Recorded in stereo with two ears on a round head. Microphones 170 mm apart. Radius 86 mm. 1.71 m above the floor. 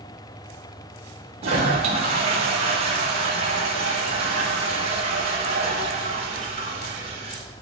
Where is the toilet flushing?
35° right (ahead or behind), 0.7 m.